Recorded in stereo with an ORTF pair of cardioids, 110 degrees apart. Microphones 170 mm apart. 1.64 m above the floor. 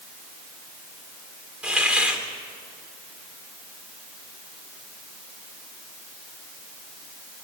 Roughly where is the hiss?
Ahead.